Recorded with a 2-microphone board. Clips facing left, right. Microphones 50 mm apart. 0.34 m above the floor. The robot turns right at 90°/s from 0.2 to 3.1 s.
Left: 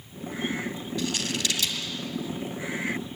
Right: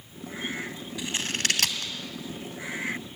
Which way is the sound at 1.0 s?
15° right (ahead or behind).